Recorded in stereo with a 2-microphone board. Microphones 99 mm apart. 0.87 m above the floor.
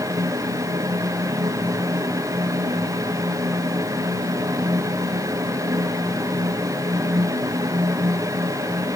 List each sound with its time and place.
Only background noise.